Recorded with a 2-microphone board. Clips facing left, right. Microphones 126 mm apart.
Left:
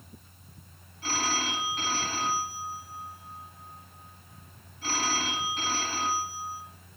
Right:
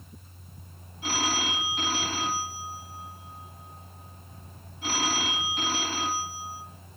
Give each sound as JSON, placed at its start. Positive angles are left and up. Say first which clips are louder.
{"t": 1.0, "sound": "a phone ringing", "louder": "right 1 dB", "side_deg": -15, "distance_m": 1.7}